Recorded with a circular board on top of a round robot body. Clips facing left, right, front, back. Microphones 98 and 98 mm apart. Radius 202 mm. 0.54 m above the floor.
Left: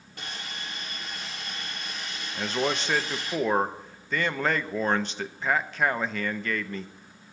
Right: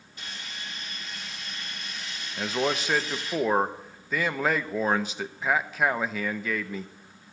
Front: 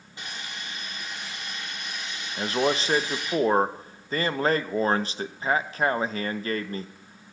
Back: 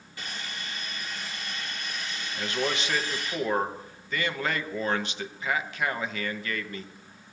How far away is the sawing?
About 2.5 m.